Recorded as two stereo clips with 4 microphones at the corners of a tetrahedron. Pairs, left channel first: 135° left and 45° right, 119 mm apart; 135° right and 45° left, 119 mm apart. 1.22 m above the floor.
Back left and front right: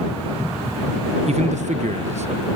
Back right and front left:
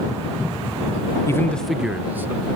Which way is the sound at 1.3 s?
70° right.